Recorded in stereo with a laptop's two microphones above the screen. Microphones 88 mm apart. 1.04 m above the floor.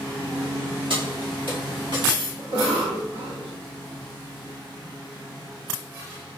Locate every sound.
0.9 s keys jangling: 70° right (ahead or behind), 1.7 m; by 2.3 s 80° right, 2.5 m
2.4 s a cough: 70° right (ahead or behind), 1.9 m